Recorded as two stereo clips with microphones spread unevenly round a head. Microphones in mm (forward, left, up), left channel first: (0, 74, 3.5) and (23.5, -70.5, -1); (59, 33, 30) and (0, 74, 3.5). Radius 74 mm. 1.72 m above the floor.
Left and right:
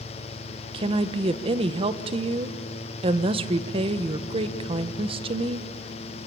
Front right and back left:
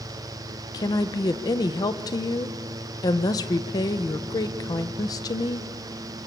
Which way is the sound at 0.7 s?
30° right.